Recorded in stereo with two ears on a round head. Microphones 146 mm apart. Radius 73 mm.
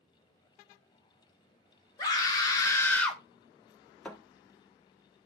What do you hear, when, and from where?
2.0 s a scream: 25° left (ahead or behind), 1.5 m; by 3.2 s centre (ahead or behind), 0.6 m
4.0 s a thud: 5° left (ahead or behind), 1.4 m